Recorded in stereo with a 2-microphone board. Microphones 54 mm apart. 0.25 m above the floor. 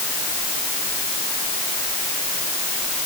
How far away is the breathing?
No breathing in this recording.